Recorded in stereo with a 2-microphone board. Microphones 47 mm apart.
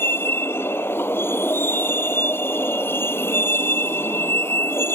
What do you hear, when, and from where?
0.0 s a vehicle: 55° left (ahead or behind)